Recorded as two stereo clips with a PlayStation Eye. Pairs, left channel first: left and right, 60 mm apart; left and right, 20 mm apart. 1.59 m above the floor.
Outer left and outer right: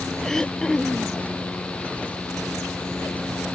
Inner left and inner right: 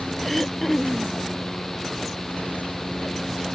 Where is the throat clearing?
10° left (ahead or behind).